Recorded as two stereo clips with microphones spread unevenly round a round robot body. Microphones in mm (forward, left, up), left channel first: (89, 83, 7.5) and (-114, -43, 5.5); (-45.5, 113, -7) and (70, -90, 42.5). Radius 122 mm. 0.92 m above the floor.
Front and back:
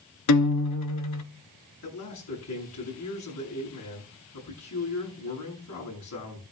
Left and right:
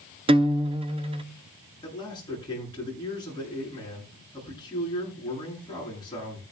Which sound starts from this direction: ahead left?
A man speaking, at 1.8 s.